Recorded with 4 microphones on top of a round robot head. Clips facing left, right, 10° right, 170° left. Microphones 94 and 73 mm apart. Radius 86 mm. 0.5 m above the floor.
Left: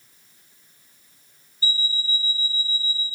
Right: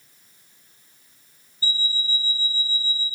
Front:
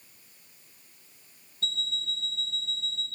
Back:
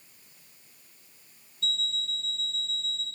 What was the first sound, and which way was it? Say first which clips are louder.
An alarm clock: even, back 1 dB; 50° right.